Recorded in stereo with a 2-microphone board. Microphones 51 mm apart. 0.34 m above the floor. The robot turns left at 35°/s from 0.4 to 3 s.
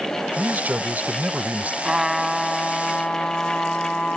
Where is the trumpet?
165° right; by 4.2 s 155° left.